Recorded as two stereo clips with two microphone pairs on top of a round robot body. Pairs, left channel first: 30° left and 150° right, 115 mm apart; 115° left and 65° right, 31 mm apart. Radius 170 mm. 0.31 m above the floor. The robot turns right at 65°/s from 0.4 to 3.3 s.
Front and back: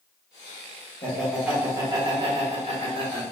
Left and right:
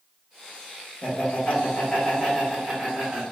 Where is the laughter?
105° left, 1.3 m; by 3.2 s 110° right, 1.3 m.